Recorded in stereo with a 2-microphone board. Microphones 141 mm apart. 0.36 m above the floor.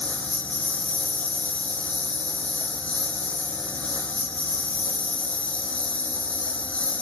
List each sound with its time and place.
0.0 s a lawn mower: 10° left (ahead or behind)